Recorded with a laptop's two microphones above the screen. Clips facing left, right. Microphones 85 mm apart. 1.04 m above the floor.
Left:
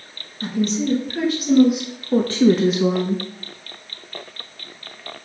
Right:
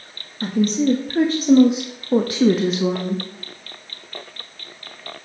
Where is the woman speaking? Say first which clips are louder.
Right 3 dB; 50° right (ahead or behind), 1.6 m; by 3.2 s 20° left (ahead or behind), 1.0 m.